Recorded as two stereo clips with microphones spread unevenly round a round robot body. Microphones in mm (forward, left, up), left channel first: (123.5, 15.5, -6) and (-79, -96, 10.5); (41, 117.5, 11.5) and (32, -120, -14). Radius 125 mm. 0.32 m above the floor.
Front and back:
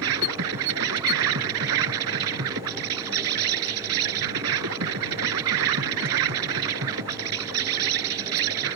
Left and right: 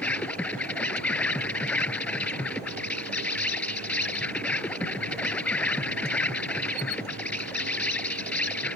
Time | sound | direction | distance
0.0 | an insect | 170° left | ?